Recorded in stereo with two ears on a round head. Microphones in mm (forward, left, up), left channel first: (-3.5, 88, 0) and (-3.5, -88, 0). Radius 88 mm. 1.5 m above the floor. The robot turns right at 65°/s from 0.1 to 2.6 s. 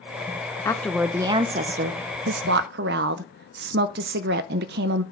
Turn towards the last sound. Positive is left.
turn(degrees=-70)